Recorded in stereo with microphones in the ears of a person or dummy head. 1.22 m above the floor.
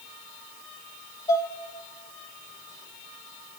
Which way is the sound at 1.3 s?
25° left (ahead or behind).